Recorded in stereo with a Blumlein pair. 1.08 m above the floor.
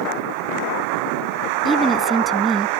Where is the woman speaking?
15° right.